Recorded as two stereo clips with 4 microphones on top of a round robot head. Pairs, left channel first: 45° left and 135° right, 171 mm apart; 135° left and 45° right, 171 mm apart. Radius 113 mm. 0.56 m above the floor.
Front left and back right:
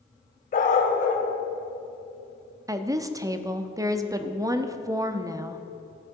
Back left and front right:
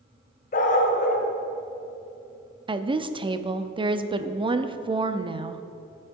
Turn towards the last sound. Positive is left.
turn(degrees=-80)